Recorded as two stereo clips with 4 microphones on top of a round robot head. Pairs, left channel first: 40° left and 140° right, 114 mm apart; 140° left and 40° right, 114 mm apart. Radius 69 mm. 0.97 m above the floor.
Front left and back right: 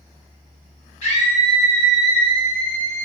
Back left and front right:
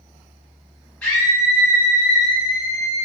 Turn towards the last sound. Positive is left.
turn(degrees=10)